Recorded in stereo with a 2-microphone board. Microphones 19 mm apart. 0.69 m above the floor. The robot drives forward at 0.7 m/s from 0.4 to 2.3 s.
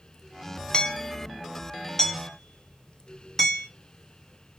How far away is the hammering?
About 0.6 m.